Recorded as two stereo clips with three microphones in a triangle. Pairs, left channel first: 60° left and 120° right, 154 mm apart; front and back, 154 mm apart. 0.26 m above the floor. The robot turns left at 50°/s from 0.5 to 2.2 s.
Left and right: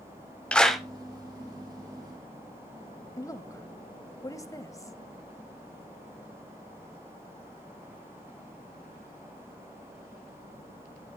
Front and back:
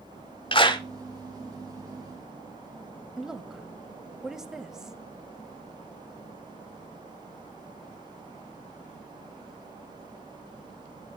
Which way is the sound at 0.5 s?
20° right.